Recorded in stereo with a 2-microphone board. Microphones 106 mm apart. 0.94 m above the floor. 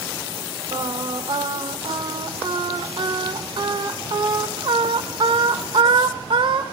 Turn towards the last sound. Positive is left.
turn(degrees=-50)  # may be behind; listen again after turning